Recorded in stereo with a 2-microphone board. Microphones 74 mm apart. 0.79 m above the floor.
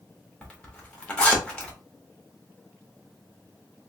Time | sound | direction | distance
0.4 | a zipper | 15° left (ahead or behind) | 1.3 m